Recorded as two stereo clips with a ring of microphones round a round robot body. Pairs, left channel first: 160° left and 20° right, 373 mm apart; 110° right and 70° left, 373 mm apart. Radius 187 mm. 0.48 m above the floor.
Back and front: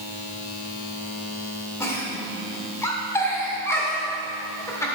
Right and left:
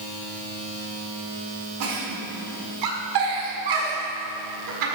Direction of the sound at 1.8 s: 75° left.